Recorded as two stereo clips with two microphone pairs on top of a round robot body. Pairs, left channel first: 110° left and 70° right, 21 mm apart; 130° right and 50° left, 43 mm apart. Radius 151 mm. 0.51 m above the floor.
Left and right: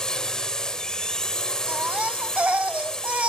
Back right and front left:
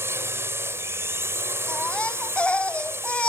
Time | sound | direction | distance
0.0 | a drone | 55° left | ?
1.7 | a baby crying | 70° right | ?